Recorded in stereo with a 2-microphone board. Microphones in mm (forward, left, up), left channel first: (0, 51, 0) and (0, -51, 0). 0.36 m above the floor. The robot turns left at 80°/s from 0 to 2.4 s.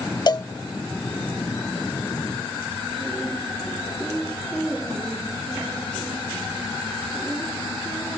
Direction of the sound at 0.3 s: 45° left (ahead or behind).